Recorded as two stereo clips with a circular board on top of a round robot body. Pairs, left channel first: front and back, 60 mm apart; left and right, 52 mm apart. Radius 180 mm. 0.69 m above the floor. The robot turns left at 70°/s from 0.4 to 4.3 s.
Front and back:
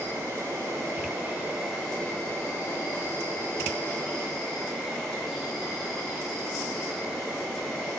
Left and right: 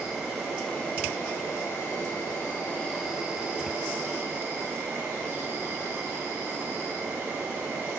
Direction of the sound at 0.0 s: 175° right.